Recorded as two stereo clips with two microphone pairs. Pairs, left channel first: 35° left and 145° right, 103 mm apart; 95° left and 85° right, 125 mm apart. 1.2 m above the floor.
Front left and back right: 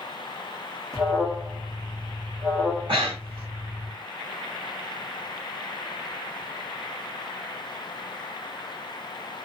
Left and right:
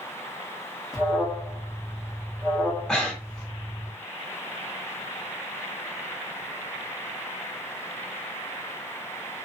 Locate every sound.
0.9 s an alarm: 160° right, 1.2 m
2.9 s breathing: 175° right, 1.2 m